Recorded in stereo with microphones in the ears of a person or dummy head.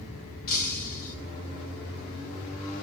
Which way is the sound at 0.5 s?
45° left (ahead or behind).